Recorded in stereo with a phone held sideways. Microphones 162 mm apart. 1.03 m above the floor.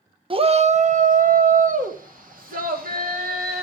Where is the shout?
35° right (ahead or behind), 0.6 m; by 3.6 s 65° right (ahead or behind), 2.5 m.